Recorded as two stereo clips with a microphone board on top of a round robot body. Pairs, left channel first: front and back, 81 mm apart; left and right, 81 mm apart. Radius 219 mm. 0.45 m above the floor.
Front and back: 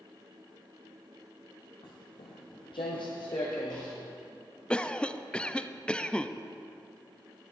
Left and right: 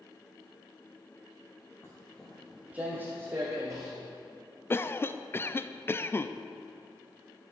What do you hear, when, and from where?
1.8 s footsteps: 30° left, 1.0 m; by 3.9 s 40° right, 2.5 m
4.7 s a cough: 65° left, 0.7 m